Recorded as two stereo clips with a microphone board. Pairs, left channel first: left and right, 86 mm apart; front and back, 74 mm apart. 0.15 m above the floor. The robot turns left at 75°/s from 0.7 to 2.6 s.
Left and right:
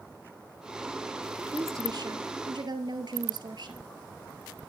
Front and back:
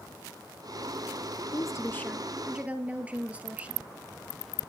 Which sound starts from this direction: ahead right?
A woman speaking, at 1.5 s.